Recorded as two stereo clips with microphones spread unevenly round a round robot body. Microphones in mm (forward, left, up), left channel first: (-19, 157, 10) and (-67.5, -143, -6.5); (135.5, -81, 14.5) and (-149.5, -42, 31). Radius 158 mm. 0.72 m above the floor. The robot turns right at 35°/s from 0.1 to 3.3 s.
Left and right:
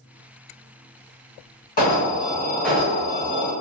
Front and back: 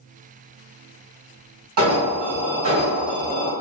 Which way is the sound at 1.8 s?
140° left.